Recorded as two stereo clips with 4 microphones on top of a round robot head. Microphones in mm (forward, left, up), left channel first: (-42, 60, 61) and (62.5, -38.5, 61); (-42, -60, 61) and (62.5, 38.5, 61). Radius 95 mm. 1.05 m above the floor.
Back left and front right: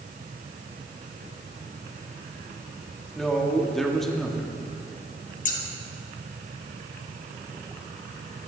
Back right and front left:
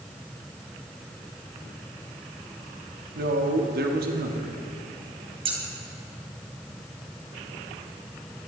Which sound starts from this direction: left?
Scissors, at 5.5 s.